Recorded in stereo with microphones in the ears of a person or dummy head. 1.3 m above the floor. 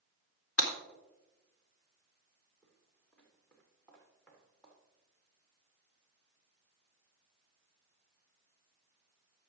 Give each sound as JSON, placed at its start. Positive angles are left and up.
{"t": 0.6, "sound": "breaking glass", "side_deg": 75, "distance_m": 2.5}
{"t": 2.6, "sound": "footsteps", "side_deg": 10, "distance_m": 3.0}